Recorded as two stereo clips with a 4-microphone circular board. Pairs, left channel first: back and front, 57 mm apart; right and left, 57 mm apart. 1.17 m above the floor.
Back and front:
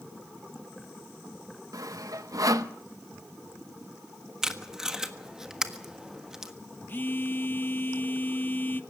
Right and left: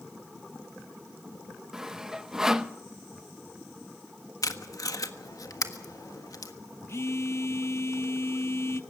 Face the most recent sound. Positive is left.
turn(degrees=-125)